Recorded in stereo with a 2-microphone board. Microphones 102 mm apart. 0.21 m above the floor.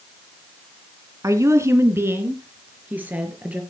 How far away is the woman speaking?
About 2.5 m.